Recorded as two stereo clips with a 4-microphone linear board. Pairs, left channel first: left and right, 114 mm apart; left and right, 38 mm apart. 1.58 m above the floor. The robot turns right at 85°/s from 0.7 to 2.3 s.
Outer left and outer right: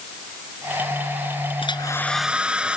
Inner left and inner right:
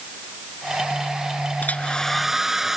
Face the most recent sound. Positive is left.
turn(degrees=-170)